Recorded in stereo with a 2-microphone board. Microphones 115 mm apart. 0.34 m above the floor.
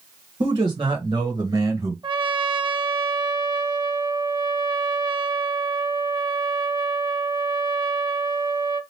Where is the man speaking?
40° right (ahead or behind), 1.2 m; by 1.9 s 30° right (ahead or behind), 1.5 m.